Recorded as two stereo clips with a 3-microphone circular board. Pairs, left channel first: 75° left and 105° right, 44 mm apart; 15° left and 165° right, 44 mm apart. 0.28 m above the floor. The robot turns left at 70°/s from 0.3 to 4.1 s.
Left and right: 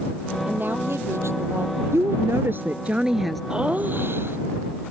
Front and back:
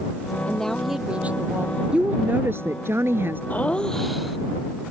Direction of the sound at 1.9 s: 95° right.